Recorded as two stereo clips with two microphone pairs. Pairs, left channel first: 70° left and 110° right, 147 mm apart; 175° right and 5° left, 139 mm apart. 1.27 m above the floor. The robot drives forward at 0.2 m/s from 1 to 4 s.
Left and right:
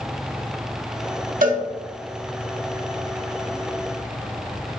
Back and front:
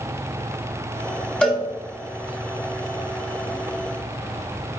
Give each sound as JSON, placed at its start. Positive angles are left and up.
{"t": 1.4, "sound": "a cowbell", "azimuth_deg": -90, "distance_m": 1.5}